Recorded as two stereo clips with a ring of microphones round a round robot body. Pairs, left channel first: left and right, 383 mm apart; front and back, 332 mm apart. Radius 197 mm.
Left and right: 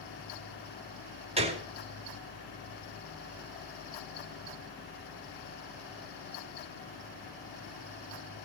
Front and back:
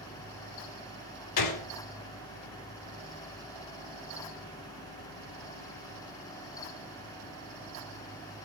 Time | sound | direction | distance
1.4 | a gunshot | 15° right | 2 m